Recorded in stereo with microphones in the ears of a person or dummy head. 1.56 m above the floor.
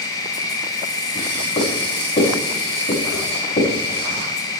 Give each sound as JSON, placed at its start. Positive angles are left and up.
{"t": 0.0, "sound": "an insect", "side_deg": 20, "distance_m": 2.5}
{"t": 1.1, "sound": "writing", "side_deg": 35, "distance_m": 6.0}